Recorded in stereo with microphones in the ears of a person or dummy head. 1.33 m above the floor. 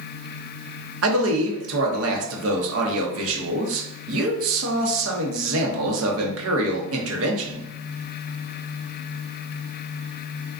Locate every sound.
1.0 s a man speaking: 75° right (ahead or behind), 0.7 m